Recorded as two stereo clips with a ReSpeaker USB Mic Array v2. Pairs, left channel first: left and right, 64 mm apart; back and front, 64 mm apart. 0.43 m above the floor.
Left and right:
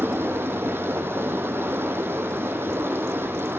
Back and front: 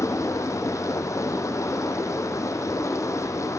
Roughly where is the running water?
Behind right.